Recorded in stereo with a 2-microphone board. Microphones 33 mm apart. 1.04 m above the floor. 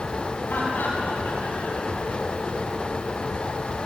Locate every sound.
0.5 s laughter: 90° left, 8 m; by 2.7 s 80° left, 7 m